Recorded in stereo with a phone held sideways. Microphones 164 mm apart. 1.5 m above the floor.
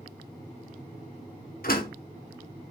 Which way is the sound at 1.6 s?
65° left (ahead or behind).